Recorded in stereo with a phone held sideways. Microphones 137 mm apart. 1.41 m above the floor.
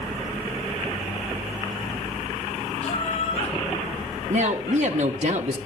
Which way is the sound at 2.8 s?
45° left (ahead or behind).